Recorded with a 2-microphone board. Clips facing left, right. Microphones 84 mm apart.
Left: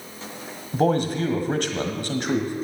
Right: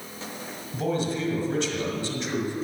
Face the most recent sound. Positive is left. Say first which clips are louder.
# left 6 dB
turn(degrees=60)  # may be behind; listen again after turning